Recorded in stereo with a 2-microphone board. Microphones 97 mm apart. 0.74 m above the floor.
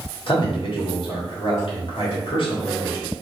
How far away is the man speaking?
About 1.6 m.